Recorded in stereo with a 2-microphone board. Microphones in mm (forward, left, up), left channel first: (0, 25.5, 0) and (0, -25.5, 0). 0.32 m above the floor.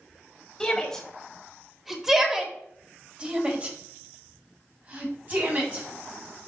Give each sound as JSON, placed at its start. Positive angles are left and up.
{"t": 0.6, "sound": "a shout", "side_deg": 15, "distance_m": 1.3}